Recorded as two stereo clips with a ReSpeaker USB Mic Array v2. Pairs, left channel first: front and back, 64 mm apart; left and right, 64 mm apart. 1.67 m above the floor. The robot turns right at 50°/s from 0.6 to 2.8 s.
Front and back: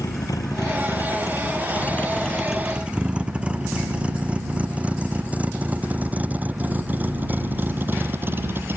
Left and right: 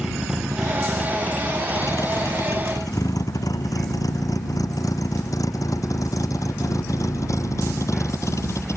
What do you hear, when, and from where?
0.0 s a vehicle: 10° right; by 8.8 s 130° left